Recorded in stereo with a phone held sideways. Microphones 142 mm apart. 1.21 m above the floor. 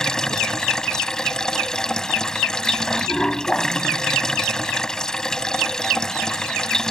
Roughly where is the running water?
Centre.